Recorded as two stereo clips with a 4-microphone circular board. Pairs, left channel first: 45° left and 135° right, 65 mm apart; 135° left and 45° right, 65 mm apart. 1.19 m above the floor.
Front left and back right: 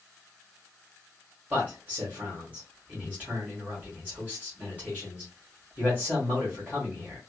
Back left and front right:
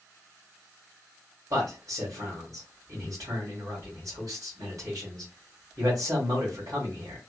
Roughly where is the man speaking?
Right.